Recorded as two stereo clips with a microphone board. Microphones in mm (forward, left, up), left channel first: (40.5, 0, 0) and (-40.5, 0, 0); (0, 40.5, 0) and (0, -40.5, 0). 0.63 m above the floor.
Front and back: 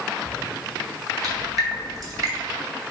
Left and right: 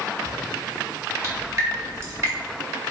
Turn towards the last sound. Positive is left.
turn(degrees=-140)